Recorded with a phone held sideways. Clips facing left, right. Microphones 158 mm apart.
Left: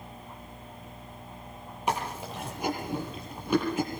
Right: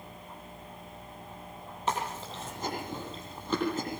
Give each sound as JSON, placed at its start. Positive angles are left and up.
{"t": 1.9, "sound": "chewing", "side_deg": 10, "distance_m": 6.5}